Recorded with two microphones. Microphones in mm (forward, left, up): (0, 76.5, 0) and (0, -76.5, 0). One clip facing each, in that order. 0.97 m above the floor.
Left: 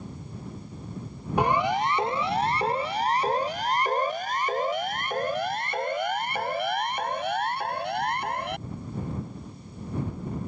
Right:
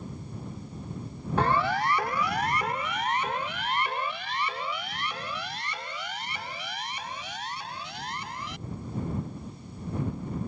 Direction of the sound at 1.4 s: 15° left (ahead or behind).